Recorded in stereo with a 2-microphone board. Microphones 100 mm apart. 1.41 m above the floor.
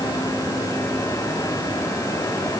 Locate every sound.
Only background noise.